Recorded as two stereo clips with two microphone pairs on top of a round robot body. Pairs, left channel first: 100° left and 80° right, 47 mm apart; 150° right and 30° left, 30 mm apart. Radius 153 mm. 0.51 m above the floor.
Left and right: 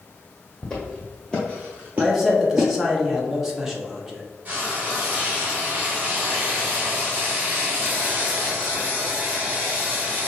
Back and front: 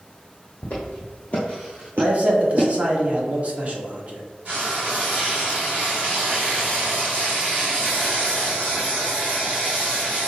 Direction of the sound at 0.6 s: 170° left.